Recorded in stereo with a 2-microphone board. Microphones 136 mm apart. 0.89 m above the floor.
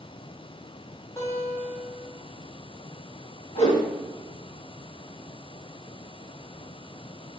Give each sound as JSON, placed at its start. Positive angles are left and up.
{"t": 1.2, "sound": "a guitar", "side_deg": 20, "distance_m": 3.5}
{"t": 3.5, "sound": "a whoosh", "side_deg": 50, "distance_m": 4.5}